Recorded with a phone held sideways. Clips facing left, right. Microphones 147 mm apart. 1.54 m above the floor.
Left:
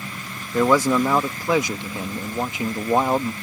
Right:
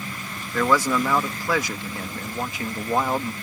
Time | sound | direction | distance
0.5 | a man speaking | 20° left (ahead or behind) | ?